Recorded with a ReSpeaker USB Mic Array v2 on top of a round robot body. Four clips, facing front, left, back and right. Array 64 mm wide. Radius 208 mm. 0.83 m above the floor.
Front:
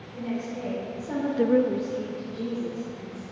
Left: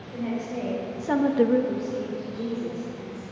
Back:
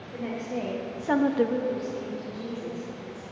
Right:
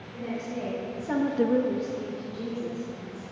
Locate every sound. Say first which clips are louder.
0.1 s a woman speaking: left 3 dB, even; 165° left, 2 m; by 3.2 s 10° right, 3 m